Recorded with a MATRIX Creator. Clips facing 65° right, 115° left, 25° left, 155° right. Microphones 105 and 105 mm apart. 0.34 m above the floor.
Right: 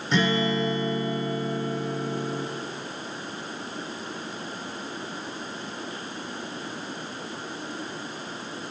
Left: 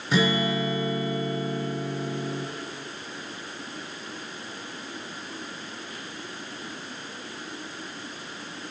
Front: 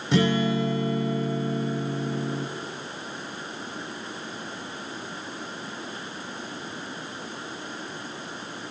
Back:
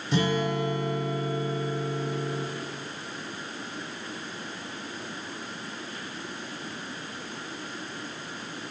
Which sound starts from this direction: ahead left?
A guitar, at 0.1 s.